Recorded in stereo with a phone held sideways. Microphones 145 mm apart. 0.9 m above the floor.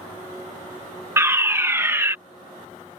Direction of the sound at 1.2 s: 15° right (ahead or behind).